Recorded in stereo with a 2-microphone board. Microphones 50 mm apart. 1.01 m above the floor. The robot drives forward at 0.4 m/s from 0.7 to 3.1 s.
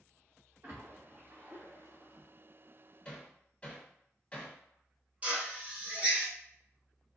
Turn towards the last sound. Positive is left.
turn(degrees=-25)  # may be behind; listen again after turning